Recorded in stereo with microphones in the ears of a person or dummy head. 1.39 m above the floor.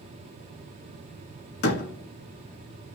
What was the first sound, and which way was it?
A door slam, 60° left (ahead or behind).